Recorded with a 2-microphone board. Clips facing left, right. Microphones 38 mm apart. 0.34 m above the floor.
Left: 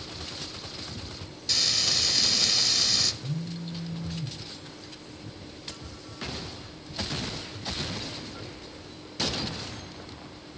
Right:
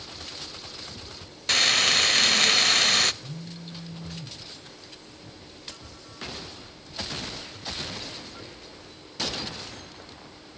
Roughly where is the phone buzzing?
Centre.